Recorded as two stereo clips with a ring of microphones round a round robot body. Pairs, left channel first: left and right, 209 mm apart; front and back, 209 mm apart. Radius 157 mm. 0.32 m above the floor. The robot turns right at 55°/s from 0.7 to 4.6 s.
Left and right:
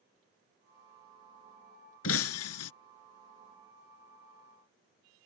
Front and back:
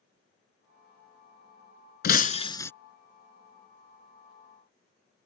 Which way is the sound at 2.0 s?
45° left.